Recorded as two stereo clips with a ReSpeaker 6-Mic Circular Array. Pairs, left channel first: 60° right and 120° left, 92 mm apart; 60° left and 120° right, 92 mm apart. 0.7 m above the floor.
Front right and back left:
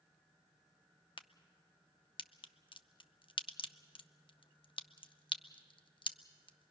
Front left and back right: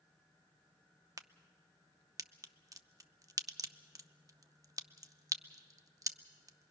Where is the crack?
70° right, 0.6 m.